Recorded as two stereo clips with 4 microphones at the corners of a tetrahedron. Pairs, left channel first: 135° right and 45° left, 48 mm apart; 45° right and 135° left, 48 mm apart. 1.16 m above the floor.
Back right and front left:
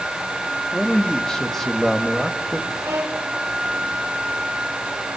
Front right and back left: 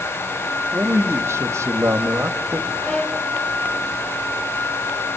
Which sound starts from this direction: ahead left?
A violin, at 2.8 s.